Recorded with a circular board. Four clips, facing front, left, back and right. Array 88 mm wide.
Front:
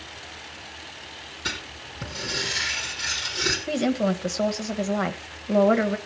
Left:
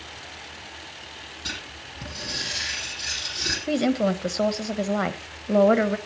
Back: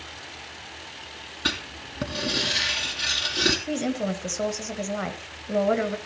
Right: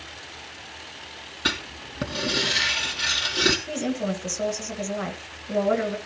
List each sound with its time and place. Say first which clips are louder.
1.4 s writing: right 9 dB, back 4 dB; 125° right, 2.5 m
3.7 s a woman speaking: left 5 dB, front 3 dB; 70° left, 1.3 m